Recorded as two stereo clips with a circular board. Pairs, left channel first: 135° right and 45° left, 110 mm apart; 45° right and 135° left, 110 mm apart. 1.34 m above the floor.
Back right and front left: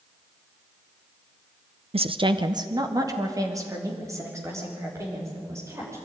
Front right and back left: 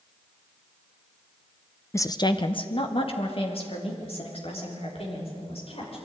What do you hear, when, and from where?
1.9 s a woman speaking: 20° left, 0.6 m; by 6.0 s 20° right, 6 m